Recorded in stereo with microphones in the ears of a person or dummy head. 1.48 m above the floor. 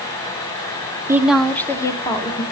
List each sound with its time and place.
1.1 s a woman speaking: 15° right (ahead or behind), 0.7 m; by 2.4 s 20° left (ahead or behind), 1.9 m